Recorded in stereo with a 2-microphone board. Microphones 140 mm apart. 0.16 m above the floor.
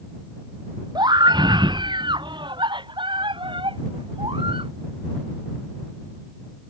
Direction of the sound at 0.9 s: 30° right (ahead or behind).